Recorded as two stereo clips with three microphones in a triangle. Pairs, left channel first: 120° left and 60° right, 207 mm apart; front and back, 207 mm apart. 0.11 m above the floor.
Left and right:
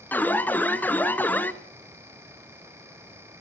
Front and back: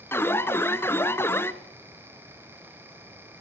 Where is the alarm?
55° left, 0.8 m.